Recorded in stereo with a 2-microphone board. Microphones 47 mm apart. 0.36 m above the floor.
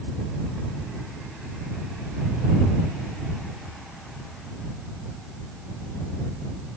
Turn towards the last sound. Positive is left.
No sound to turn to.